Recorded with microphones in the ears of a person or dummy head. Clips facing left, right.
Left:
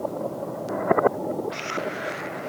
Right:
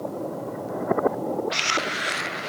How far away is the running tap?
No running tap in this recording.